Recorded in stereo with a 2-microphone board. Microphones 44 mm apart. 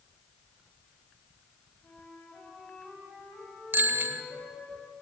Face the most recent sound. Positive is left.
turn(degrees=-45)  # may be behind; listen again after turning